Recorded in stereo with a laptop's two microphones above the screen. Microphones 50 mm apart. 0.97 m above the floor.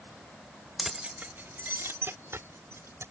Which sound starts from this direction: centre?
Keys jangling, at 0.8 s.